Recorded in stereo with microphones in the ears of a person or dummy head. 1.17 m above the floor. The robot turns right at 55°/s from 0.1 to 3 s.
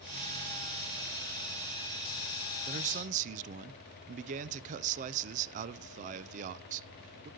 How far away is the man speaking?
About 0.6 m.